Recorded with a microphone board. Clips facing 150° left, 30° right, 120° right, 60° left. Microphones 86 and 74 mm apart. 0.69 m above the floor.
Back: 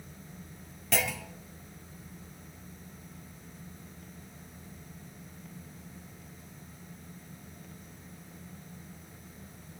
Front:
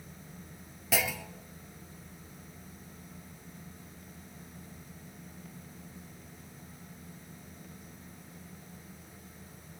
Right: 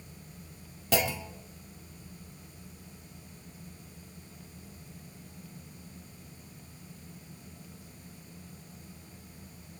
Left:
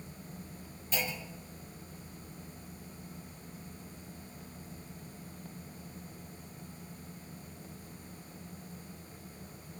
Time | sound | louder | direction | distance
0.9 | a clunk | even, right 8 dB | 115° right | 0.9 m